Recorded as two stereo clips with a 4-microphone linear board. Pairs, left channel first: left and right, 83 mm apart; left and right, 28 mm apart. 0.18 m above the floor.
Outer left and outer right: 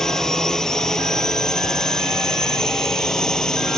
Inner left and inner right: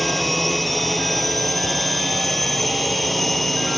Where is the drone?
5° left (ahead or behind).